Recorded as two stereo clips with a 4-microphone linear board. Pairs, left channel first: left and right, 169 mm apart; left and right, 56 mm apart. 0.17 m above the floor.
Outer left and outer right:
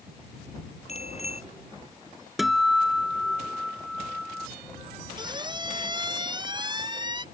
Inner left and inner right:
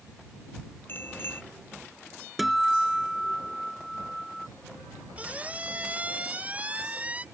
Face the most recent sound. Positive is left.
turn(degrees=-25)  # may be behind; listen again after turning